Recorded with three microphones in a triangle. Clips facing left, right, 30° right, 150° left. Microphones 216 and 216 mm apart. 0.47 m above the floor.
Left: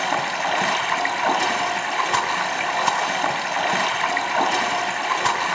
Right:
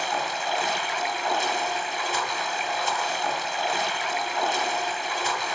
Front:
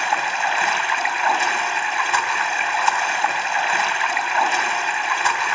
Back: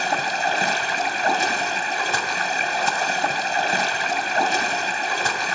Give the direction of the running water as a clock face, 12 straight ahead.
9 o'clock.